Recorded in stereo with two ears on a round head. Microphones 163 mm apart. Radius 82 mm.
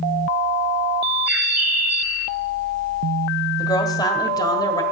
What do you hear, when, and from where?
1.3 s a bird: 10° right (ahead or behind), 1.8 m
3.6 s a woman speaking: 20° left (ahead or behind), 1.7 m